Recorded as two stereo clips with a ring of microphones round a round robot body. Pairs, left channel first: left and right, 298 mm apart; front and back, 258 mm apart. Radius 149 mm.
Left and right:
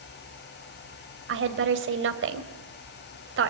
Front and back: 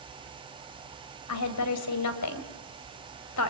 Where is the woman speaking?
40° right, 2.5 m.